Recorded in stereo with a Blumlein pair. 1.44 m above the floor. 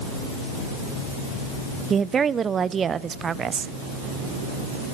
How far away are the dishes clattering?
I don't hear dishes clattering.